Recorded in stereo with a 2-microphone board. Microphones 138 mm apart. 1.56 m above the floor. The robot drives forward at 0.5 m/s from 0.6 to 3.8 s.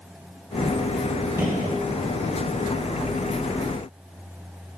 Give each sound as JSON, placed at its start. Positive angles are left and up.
{"t": 1.4, "sound": "a gunshot", "side_deg": -15, "distance_m": 9.0}